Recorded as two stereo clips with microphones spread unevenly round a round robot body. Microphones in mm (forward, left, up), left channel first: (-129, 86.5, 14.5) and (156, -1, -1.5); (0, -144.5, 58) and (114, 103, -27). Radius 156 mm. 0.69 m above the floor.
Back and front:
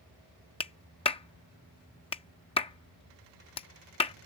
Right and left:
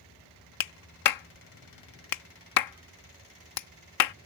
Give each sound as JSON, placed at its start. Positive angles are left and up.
{"t": 0.6, "sound": "a clap", "azimuth_deg": -125}